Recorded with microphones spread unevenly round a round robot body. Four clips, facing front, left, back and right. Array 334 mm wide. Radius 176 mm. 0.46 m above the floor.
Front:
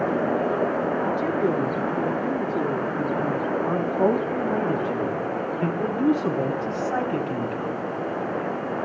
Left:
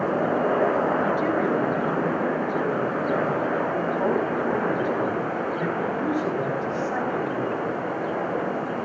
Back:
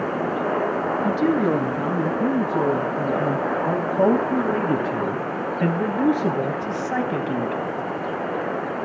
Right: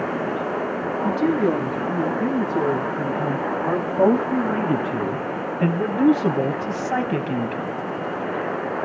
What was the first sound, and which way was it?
A man speaking, 155° right.